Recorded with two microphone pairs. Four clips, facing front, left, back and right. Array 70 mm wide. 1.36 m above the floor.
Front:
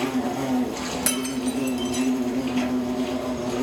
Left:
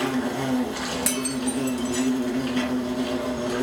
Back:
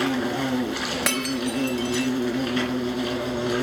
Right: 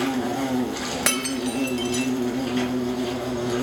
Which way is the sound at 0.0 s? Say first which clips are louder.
Right 1 dB, back 1 dB; 175° left.